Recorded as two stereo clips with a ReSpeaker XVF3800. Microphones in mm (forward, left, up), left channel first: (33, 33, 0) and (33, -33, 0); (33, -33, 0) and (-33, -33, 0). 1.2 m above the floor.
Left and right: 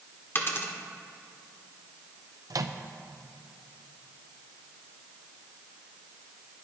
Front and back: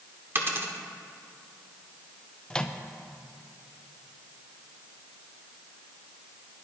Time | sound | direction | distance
0.3 | a dropped coin | 135° left | 1.4 m
2.5 | a microwave | 75° right | 0.7 m